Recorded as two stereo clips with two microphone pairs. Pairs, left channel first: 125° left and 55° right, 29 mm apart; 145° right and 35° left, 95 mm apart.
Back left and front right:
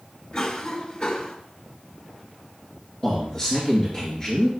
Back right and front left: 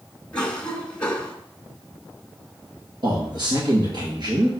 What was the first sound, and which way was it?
A cough, 140° left.